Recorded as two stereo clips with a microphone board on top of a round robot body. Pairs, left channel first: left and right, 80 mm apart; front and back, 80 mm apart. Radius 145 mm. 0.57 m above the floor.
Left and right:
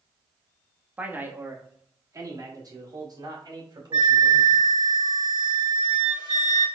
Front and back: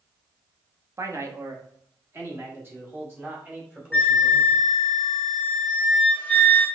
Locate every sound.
1.0 s a man speaking: 155° right, 1.0 m; by 4.7 s 110° right, 3 m
3.9 s a flute: 70° right, 0.8 m